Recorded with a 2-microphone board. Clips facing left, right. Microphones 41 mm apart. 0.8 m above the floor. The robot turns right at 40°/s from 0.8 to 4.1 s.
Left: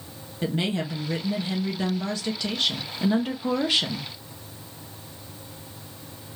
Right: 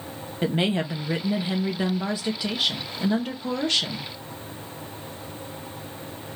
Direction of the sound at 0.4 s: 25° right (ahead or behind).